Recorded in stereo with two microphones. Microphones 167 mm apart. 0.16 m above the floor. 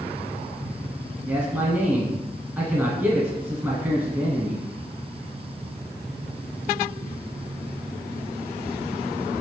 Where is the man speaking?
10° right (ahead or behind), 1.8 m.